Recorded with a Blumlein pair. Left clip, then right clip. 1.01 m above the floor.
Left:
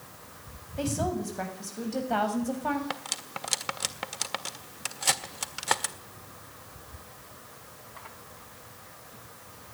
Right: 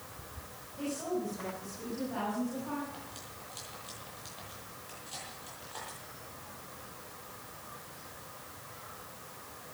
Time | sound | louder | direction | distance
0.8 | a woman speaking | left 5 dB | 35° left | 8 m
2.9 | cutlery clinking | left 11 dB | 45° left | 1.5 m